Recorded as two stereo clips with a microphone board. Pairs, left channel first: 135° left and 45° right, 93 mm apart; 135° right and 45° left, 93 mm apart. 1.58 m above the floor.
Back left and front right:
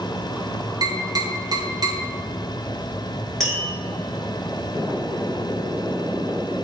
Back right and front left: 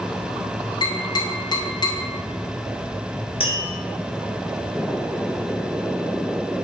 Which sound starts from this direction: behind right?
Tapping, at 3.4 s.